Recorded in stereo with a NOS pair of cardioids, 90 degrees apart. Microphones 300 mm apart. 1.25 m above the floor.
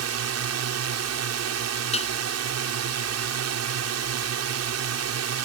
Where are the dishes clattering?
20° left.